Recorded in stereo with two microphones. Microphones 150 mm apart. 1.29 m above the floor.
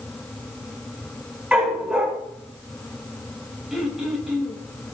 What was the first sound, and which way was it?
A dog barking, 10° right (ahead or behind).